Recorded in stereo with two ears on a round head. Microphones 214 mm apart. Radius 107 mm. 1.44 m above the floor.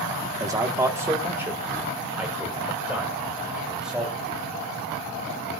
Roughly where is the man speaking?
Centre.